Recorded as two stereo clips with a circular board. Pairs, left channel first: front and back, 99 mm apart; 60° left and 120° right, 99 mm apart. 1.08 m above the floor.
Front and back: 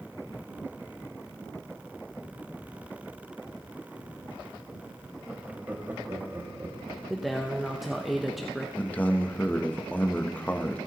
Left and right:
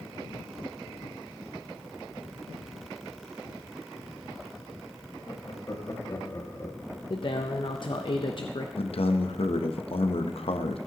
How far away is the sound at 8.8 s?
About 0.8 m.